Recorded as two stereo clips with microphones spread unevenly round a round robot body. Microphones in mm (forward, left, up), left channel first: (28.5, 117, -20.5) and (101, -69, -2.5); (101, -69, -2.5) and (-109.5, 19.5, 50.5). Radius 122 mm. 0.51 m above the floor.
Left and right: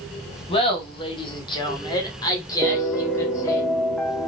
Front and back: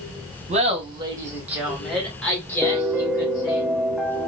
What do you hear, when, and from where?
0.5 s laughter: 100° left, 1.2 m; by 3.6 s 40° left, 2 m
2.6 s a piano: 45° left, 0.7 m